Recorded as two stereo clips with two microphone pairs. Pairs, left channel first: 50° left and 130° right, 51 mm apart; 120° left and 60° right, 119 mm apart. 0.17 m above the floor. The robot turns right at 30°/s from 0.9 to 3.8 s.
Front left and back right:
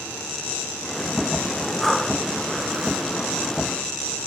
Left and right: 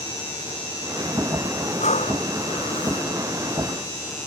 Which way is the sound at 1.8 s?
140° left.